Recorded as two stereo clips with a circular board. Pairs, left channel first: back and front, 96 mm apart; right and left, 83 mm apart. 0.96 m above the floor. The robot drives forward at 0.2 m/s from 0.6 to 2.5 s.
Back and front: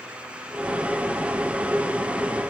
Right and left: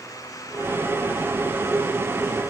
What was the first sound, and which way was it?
Only background noise.